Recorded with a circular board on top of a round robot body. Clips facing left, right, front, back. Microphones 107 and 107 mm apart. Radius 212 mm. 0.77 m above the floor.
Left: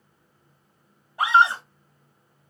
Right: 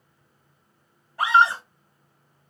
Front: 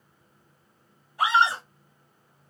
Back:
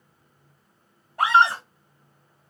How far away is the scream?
About 1.8 m.